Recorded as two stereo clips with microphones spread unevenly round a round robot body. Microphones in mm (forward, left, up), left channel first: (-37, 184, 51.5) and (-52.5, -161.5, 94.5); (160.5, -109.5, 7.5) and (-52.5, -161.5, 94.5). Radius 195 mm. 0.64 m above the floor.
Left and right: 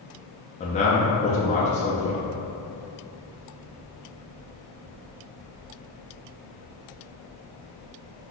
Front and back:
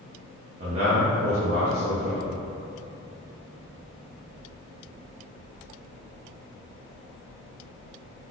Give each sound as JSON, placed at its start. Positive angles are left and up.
{"t": 0.6, "sound": "a man speaking", "azimuth_deg": 120, "distance_m": 0.6}